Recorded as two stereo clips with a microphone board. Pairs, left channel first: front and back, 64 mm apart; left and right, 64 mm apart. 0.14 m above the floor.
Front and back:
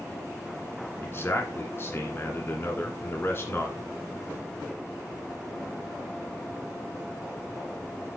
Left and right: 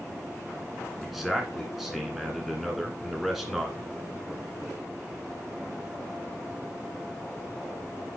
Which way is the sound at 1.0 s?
Straight ahead.